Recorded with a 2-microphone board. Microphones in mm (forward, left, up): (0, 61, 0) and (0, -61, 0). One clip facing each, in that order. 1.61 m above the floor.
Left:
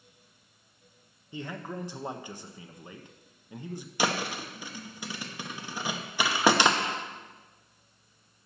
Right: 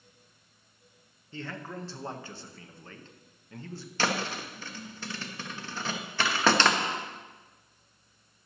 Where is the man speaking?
15° left (ahead or behind), 0.8 m.